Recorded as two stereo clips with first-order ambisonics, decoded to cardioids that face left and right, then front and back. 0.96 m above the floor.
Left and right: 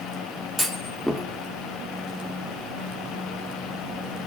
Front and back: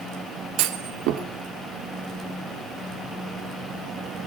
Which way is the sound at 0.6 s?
Straight behind.